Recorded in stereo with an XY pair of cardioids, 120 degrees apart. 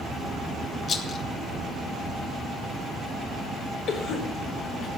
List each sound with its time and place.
0.9 s a rattle: 40° left, 1.6 m
3.9 s a cough: 60° left, 3.5 m